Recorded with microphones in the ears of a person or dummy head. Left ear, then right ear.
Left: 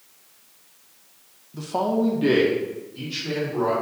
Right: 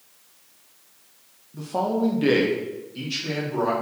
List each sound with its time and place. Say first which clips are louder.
1.5 s a man speaking: left 1 dB; 20° left (ahead or behind), 0.5 m; by 3.7 s 35° right (ahead or behind), 1.4 m